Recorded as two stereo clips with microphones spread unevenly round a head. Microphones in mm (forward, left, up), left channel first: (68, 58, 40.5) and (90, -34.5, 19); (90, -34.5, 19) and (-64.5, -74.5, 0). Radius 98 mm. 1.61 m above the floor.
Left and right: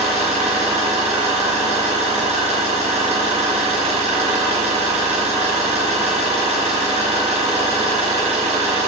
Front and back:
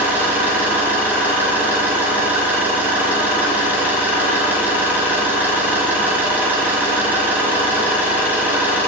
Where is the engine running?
85° right, 2.5 m.